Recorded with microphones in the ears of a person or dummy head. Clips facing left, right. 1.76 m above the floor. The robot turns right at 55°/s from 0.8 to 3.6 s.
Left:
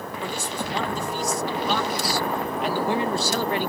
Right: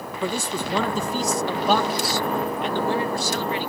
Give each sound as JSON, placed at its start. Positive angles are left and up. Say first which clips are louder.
{"t": 0.2, "sound": "a man speaking", "louder": "right 5 dB", "azimuth_deg": -100}